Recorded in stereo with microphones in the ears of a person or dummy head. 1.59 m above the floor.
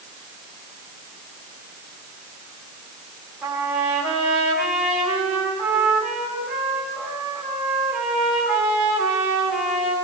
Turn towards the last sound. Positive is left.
turn(degrees=-5)  # may be behind; listen again after turning